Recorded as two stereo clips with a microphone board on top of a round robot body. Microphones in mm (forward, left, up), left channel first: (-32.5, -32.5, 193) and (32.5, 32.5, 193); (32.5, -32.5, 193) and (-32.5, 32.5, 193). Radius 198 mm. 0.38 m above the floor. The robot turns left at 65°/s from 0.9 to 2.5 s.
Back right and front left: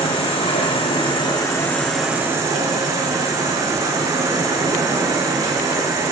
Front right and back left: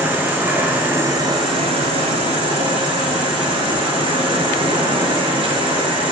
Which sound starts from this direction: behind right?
An insect, at 0.0 s.